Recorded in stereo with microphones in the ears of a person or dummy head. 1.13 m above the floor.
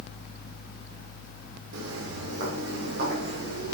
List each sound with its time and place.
1.7 s footsteps: 60° right (ahead or behind), 3 m; by 3.7 s 45° right (ahead or behind), 3.5 m